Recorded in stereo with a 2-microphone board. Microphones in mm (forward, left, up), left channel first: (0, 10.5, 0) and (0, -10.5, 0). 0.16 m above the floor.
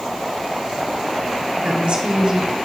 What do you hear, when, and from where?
1.6 s a woman speaking: 55° right (ahead or behind), 2.5 m